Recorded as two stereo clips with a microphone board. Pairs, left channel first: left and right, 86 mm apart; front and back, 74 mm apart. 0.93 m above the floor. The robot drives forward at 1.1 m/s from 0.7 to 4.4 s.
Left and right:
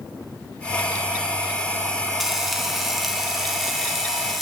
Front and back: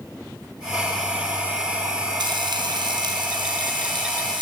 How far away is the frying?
About 4 m.